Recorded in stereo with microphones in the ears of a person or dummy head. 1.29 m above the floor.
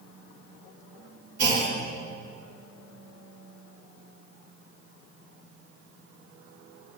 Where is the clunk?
60° right (ahead or behind), 1.6 m.